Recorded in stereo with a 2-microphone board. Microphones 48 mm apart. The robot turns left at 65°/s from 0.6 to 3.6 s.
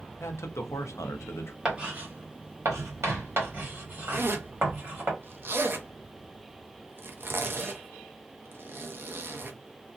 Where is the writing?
10° right (ahead or behind), 1.4 m; by 5.1 s 40° right (ahead or behind), 1.4 m.